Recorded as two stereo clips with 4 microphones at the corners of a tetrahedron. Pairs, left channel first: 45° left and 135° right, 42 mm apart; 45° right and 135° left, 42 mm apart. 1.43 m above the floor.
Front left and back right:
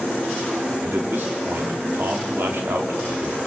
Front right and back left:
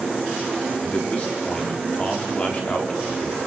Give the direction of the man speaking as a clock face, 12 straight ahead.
3 o'clock.